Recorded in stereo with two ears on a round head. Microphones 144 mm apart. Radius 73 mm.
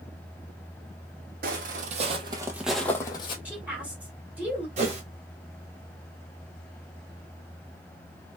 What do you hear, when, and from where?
1.4 s footsteps: 60° right (ahead or behind), 0.9 m; by 3.4 s 30° left (ahead or behind), 0.7 m
3.5 s a woman speaking: 10° right (ahead or behind), 1.4 m
4.8 s a whoosh: 45° right (ahead or behind), 1.1 m